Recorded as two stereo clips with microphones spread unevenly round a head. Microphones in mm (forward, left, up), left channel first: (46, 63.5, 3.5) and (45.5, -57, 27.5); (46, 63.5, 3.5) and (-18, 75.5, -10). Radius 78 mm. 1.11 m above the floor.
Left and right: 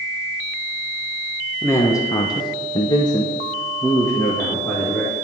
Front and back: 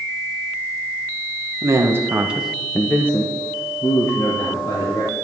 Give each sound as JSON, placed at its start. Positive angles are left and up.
{"t": 1.6, "sound": "a man speaking", "azimuth_deg": 155, "distance_m": 1.1}